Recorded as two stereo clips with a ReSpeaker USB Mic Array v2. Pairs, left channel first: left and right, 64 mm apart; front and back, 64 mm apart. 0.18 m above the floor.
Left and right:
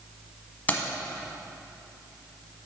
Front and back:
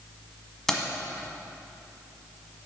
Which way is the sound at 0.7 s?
75° left.